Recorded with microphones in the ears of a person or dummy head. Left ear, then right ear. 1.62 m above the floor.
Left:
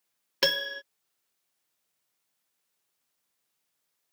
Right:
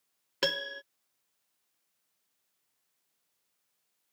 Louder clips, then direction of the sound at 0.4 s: Left 4 dB; 20° left (ahead or behind).